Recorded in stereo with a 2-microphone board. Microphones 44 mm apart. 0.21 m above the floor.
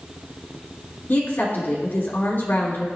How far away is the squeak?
I don't hear a squeak.